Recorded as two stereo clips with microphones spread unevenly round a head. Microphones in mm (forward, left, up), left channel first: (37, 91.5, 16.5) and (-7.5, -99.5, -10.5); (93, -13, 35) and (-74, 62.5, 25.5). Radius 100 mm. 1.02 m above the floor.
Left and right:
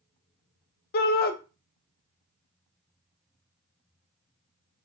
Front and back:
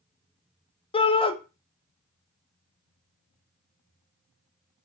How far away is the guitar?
I don't hear a guitar.